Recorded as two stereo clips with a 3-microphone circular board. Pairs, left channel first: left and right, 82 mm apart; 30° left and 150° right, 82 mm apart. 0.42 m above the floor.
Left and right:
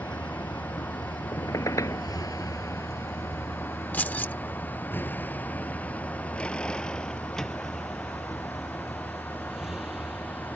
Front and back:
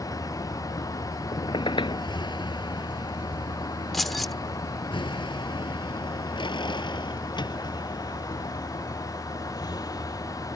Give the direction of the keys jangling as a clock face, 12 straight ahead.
8 o'clock.